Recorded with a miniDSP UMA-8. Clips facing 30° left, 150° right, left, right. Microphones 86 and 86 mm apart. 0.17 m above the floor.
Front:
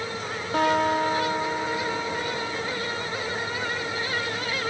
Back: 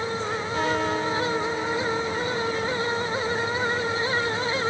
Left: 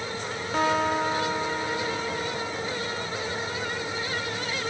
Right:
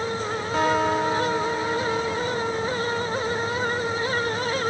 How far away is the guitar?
About 8.5 m.